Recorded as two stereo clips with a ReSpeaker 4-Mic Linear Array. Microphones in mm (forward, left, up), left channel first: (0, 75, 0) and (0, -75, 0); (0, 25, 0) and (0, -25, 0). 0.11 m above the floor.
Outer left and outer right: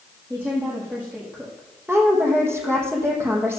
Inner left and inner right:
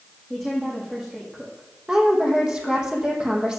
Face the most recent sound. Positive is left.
turn(degrees=-15)  # may be behind; listen again after turning